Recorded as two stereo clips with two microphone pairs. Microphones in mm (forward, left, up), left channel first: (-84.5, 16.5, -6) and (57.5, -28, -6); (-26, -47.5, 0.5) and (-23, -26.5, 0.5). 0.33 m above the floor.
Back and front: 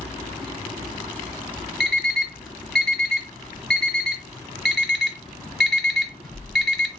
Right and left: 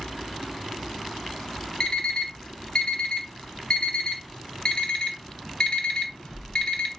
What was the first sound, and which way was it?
An alarm clock, 110° right.